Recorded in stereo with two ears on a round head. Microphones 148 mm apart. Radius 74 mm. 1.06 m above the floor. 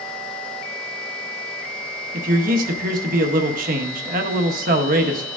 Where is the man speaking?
55° right (ahead or behind), 1.3 m.